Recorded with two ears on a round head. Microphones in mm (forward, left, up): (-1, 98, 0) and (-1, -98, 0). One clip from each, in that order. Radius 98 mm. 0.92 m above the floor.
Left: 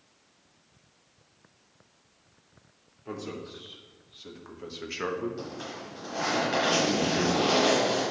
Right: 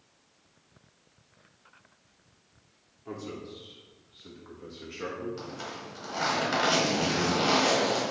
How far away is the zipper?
About 3.5 m.